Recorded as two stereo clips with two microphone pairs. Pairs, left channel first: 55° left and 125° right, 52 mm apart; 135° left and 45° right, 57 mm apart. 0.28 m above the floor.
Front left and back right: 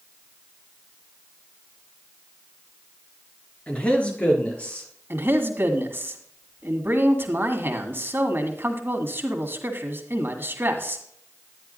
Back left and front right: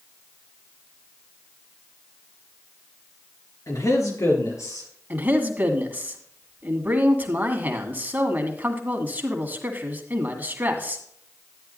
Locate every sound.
3.7 s a man speaking: 120° left, 3.5 m; by 4.9 s 115° left, 5 m
5.1 s a man speaking: 95° right, 1.8 m